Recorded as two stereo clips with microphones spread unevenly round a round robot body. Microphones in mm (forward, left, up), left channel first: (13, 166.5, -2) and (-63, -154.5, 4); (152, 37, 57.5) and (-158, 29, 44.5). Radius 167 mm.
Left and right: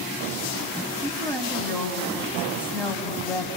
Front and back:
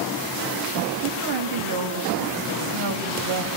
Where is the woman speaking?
160° left, 4 m.